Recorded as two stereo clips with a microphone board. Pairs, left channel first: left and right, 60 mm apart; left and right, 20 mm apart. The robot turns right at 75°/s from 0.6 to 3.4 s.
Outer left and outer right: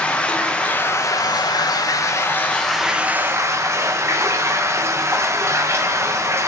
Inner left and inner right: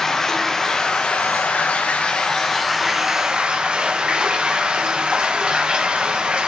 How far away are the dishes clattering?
I don't hear dishes clattering.